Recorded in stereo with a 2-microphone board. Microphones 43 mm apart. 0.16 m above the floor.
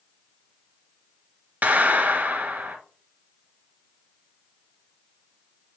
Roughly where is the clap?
Right.